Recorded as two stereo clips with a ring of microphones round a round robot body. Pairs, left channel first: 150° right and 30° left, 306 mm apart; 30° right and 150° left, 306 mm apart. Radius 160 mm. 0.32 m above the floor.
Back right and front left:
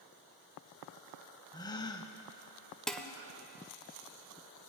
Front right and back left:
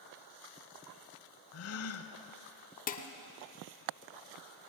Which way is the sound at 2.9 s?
65° right.